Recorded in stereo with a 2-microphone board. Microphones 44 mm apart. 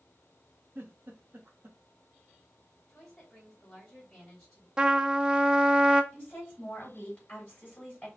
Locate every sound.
0.8 s a giggle: 55° right (ahead or behind), 1.2 m
2.9 s a woman speaking: 10° left (ahead or behind), 2.5 m
4.8 s a trumpet: 20° right (ahead or behind), 0.6 m
6.1 s a woman speaking: 30° left (ahead or behind), 3 m